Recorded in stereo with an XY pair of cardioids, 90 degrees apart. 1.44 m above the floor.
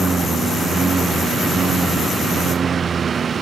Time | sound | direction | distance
0.0 | a lawn mower | 45° right | ?